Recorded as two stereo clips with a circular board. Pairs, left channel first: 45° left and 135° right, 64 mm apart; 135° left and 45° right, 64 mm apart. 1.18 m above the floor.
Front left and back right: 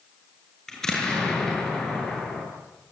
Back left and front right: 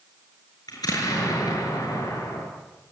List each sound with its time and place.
0.7 s an explosion: 125° left, 7.5 m